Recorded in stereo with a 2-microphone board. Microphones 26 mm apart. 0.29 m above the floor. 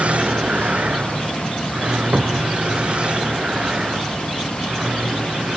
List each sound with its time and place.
0.0 s a vehicle: 55° right (ahead or behind); by 5.6 s 40° right (ahead or behind)
2.1 s a cupboard door: 85° right